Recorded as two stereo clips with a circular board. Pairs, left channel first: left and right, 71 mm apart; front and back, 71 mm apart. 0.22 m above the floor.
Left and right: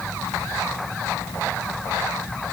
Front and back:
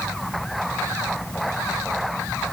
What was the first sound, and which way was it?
Only background noise.